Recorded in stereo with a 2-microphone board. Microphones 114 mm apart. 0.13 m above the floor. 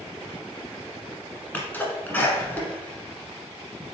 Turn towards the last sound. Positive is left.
turn(degrees=15)  # may be behind; listen again after turning